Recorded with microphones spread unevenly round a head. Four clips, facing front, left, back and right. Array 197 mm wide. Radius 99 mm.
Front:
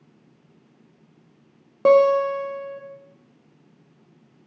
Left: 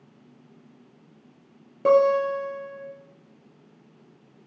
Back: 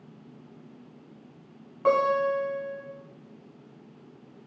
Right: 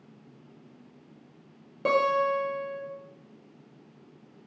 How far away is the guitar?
About 0.6 m.